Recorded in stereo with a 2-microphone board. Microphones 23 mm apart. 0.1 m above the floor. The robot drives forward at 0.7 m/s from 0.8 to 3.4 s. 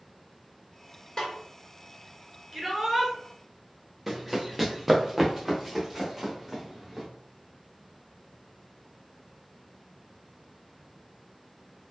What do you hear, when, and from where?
1.2 s a snare drum: 30° left (ahead or behind), 2 m
2.5 s a shout: 20° right (ahead or behind), 1.6 m; by 3.1 s 15° right (ahead or behind), 1.7 m
4.1 s running footsteps: 10° right (ahead or behind), 0.9 m; by 7.1 s 15° right (ahead or behind), 2.5 m